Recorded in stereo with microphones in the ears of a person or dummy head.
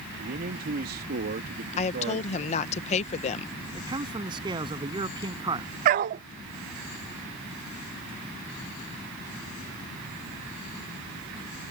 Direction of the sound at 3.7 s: 25° right (ahead or behind).